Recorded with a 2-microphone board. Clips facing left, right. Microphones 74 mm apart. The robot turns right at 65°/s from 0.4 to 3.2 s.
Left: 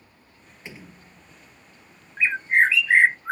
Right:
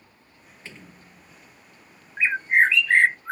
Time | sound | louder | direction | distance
0.7 | a door slam | left 2 dB | 160° left | ?
2.2 | a bird | even | 35° right | ?